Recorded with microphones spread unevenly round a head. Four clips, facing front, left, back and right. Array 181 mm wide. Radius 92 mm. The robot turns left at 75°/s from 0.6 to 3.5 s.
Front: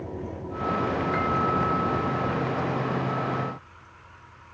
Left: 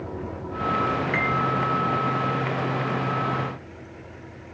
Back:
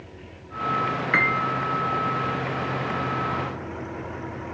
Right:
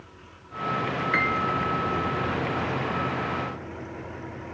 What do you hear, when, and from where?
0.0 s an engine running: 55° left; by 4.5 s 160° right
1.1 s a piano: 170° right; by 1.4 s 165° left